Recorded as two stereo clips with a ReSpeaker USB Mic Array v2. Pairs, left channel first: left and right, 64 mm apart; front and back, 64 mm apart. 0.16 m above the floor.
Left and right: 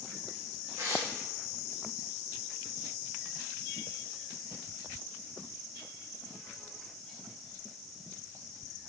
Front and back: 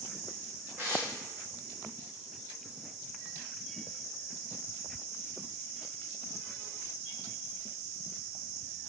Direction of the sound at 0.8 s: 130° right.